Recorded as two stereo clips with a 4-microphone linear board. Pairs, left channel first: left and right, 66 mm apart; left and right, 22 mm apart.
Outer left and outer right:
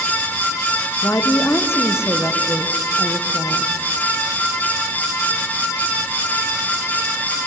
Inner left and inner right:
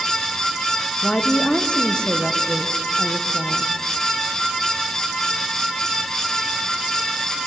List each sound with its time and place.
1.0 s a woman speaking: 40° left (ahead or behind), 1.3 m